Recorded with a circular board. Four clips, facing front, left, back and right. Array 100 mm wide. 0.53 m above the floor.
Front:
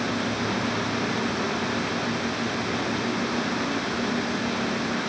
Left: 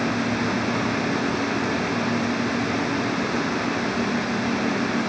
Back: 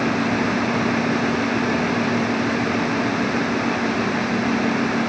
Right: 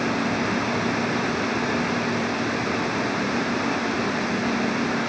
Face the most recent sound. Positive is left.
No sound to turn to.